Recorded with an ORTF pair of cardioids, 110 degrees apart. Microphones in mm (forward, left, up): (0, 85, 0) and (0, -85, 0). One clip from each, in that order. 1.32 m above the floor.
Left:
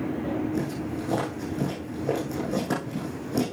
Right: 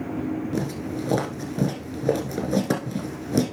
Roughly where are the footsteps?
Ahead right.